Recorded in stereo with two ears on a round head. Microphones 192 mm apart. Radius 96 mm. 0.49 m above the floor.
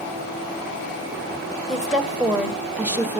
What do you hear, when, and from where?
1.7 s a woman speaking: centre (ahead or behind), 2 m; by 3.2 s 10° right (ahead or behind), 1.4 m